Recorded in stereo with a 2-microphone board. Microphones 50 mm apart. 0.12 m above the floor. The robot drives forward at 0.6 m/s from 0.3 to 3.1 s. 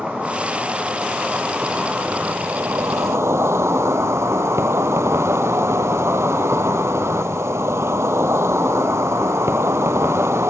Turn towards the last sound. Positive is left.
turn(degrees=-80)